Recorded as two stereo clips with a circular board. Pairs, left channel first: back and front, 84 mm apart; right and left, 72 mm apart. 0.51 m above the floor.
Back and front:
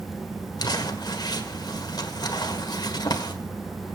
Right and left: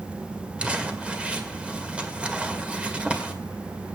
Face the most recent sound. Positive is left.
turn(degrees=160)